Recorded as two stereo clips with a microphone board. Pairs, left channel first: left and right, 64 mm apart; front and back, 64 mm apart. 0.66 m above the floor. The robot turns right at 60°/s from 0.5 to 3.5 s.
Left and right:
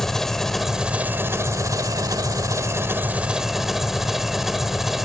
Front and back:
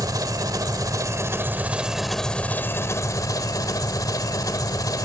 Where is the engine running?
175° left, 1.6 m; by 5.0 s 5° right, 1.6 m.